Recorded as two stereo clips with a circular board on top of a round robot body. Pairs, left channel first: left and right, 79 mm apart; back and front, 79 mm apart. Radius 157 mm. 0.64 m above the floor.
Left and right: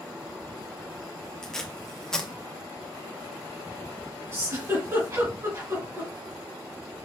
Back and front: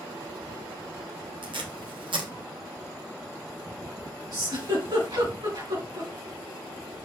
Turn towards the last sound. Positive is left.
turn(degrees=-35)